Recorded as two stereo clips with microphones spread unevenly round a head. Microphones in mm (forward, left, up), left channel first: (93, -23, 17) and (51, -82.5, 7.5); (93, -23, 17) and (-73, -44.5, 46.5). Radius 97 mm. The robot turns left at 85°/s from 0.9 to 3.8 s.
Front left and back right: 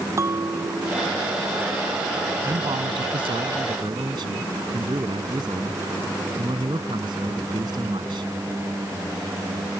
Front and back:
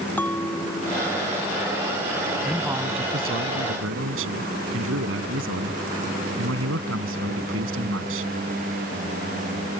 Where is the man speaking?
75° right; by 8.3 s 170° left.